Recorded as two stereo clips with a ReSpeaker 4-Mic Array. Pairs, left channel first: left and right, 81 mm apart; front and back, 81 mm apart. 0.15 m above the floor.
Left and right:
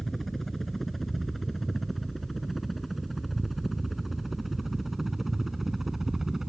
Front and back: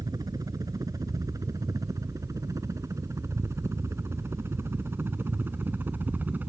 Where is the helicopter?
175° left; by 6.5 s 165° right.